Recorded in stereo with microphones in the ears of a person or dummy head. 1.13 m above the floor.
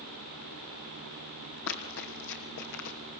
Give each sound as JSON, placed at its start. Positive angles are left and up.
{"t": 1.7, "sound": "running footsteps", "side_deg": 65, "distance_m": 3.0}